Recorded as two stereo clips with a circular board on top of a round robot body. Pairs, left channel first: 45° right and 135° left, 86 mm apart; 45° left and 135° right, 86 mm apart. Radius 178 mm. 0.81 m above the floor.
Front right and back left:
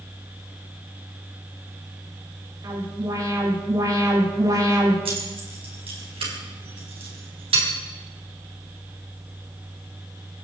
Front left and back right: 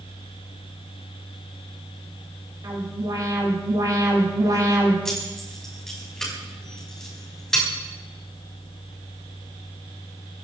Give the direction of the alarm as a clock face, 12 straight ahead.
6 o'clock.